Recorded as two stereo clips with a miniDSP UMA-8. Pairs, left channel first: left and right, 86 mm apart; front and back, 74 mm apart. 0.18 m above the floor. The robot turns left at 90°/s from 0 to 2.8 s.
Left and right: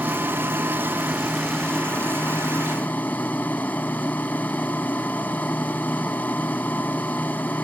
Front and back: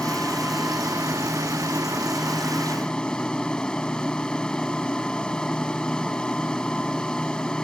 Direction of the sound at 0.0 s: 50° right.